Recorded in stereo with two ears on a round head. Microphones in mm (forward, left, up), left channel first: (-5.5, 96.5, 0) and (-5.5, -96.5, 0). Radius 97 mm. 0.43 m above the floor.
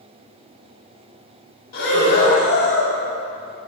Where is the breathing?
45° left (ahead or behind), 1.6 m.